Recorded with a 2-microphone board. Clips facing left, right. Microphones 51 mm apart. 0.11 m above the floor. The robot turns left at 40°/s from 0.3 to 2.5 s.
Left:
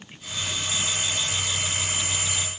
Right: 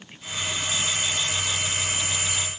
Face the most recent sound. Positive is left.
No sound to turn to.